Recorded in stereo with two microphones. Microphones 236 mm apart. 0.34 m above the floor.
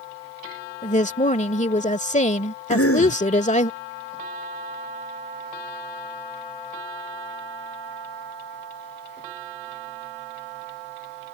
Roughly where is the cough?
Left.